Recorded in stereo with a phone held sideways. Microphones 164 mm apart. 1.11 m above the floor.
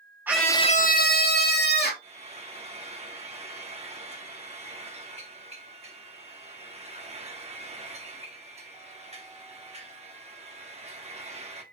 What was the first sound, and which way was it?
A scream, 10° right (ahead or behind).